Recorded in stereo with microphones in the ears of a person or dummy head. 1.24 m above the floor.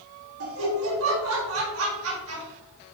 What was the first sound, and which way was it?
Laughter, 80° right.